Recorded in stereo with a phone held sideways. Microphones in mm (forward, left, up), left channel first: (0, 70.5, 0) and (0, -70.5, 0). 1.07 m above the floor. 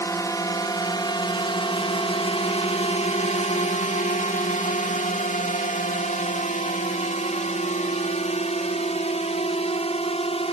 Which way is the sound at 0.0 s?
20° left (ahead or behind).